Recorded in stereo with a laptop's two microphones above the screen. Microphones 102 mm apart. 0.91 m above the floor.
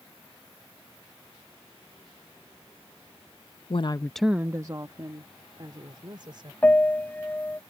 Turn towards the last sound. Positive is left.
turn(degrees=15)  # may be behind; listen again after turning